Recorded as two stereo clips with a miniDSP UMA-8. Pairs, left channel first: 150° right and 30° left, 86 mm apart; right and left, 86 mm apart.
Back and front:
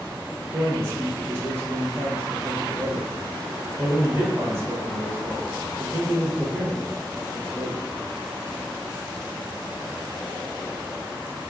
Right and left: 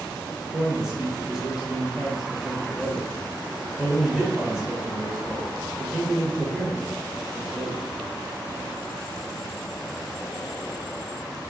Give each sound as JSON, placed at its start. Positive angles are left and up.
{"t": 0.4, "sound": "a man speaking", "azimuth_deg": 10, "distance_m": 1.1}